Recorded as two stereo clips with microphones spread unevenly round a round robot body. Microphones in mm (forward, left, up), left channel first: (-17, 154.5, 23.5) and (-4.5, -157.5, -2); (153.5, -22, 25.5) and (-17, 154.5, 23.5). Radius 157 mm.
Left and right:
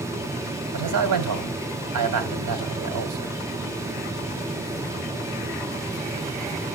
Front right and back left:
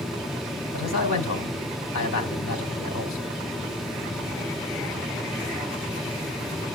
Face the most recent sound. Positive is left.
turn(degrees=-85)